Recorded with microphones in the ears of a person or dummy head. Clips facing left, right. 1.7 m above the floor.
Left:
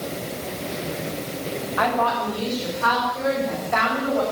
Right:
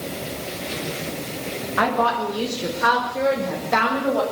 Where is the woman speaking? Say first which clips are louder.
Right 1 dB; 35° right (ahead or behind), 3.5 m; by 4.2 s 40° right (ahead or behind), 7 m.